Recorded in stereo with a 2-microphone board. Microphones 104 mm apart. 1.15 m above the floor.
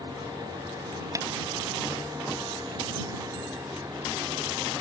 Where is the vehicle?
45° right (ahead or behind); by 4.8 s 30° right (ahead or behind).